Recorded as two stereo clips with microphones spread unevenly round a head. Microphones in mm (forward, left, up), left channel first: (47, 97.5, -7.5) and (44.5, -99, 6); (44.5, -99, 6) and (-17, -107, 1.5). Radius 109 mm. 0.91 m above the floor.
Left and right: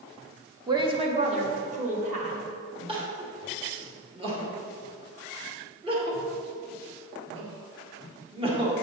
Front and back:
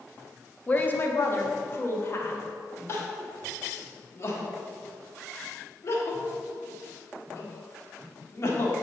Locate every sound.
0.7 s a woman speaking: 35° right, 0.7 m; by 2.5 s 40° right, 1.8 m
2.9 s crying: 30° right, 1.4 m